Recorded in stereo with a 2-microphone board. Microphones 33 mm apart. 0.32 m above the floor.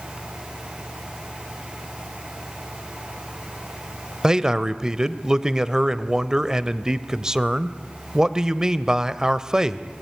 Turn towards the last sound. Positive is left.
turn(degrees=-20)  # may be behind; listen again after turning